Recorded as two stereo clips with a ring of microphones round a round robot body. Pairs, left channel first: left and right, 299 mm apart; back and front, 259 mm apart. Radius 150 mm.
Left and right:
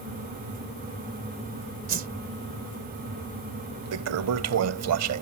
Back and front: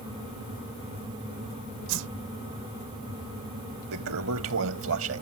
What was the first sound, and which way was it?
A whoosh, 30° right.